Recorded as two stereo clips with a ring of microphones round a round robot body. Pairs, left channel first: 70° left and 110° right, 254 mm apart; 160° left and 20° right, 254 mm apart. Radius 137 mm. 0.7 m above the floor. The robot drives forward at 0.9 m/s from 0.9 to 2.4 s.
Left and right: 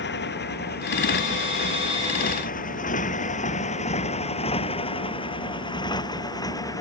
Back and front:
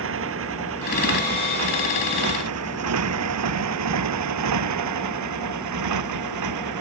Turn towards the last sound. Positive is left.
turn(degrees=-10)